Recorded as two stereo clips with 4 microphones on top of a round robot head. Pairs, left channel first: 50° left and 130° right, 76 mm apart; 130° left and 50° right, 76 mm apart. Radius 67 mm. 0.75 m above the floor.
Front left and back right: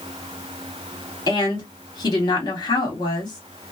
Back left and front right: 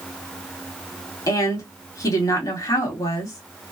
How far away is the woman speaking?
About 1.8 m.